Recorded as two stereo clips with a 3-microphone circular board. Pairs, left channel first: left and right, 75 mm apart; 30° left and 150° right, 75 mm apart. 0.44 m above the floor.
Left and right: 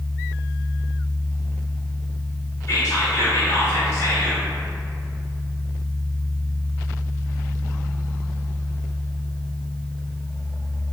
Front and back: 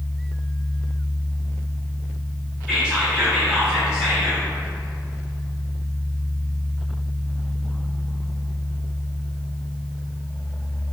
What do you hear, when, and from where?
2.7 s whispering: 135° left, 1.1 m